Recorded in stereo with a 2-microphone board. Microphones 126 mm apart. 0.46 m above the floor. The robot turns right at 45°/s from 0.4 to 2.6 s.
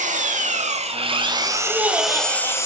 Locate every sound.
0.0 s an engine running: 75° right, 0.9 m; by 2.7 s 20° left, 0.9 m
1.7 s laughter: 170° right, 1.1 m; by 2.6 s 130° right, 1.1 m